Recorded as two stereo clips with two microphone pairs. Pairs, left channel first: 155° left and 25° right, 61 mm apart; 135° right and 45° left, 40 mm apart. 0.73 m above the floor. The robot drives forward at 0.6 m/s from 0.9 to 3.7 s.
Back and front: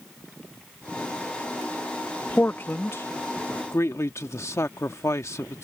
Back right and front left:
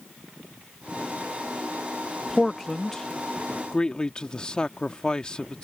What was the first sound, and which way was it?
A man speaking, 145° left.